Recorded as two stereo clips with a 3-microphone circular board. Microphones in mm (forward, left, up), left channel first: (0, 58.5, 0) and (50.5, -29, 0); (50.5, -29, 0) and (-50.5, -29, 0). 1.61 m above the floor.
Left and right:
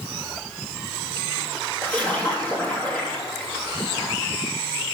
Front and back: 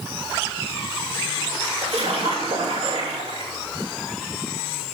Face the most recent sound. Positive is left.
turn(degrees=-165)